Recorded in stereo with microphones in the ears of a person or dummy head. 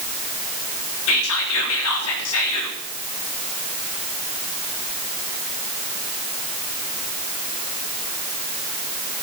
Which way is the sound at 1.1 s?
65° left (ahead or behind).